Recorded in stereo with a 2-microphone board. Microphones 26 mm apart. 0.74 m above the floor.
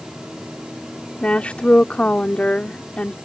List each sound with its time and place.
1.2 s a woman speaking: 60° left (ahead or behind)